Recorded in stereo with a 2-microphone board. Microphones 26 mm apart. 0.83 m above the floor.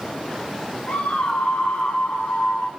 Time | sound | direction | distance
0.9 | a scream | 70° left (ahead or behind) | 2.5 m